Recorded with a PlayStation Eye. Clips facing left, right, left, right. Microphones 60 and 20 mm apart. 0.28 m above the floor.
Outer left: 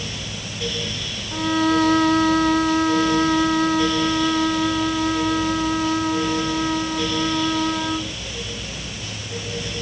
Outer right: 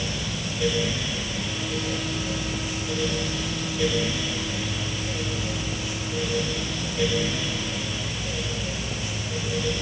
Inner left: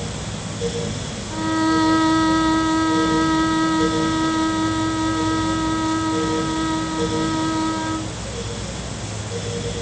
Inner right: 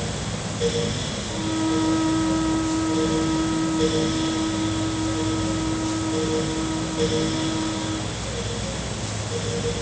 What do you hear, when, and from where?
1.3 s a violin: 65° left (ahead or behind)